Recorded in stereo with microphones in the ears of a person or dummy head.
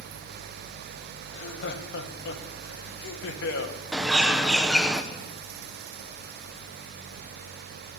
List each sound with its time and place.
1.3 s laughter: 70° left (ahead or behind), 1.9 m
3.9 s a bird: 5° right (ahead or behind), 1.0 m